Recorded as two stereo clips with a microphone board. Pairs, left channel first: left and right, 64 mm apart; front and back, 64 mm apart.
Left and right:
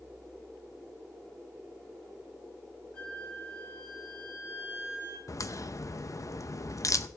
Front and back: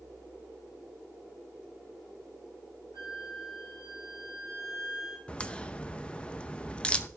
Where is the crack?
70° left, 0.6 m.